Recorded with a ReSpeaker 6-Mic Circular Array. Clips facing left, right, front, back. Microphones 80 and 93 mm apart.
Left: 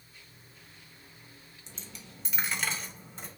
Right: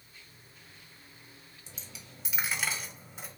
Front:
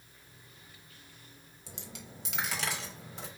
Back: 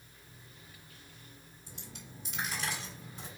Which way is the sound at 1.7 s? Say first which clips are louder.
Left 2 dB, front 4 dB; 5° right.